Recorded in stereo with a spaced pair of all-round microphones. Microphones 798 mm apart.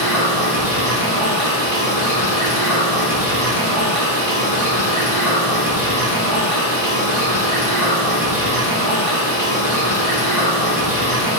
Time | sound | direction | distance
0.0 | running water | 50° left (ahead or behind) | 1.8 m